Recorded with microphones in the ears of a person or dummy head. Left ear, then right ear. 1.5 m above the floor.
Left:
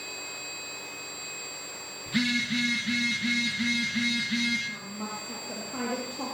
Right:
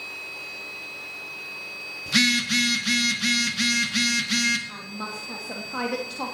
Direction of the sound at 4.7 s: 45° right (ahead or behind).